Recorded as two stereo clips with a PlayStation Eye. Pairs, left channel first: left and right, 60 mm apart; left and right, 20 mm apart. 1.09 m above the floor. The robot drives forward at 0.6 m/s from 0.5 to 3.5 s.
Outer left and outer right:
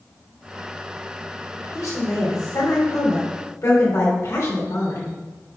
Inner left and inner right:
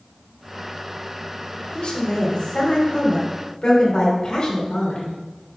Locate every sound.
1.6 s a woman speaking: 75° left (ahead or behind), 3 m; by 5.1 s 55° left (ahead or behind), 3.5 m